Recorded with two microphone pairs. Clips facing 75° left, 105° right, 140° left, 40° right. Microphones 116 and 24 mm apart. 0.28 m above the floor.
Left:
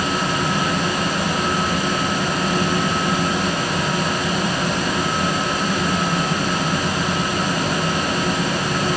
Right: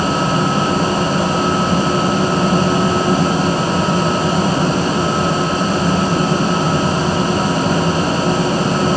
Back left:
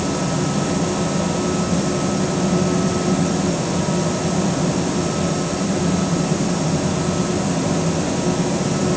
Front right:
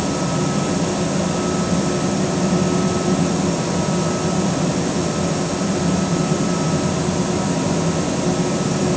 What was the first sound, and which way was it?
Only background noise.